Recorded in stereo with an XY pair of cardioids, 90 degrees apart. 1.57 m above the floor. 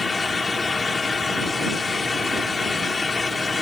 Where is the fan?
35° left.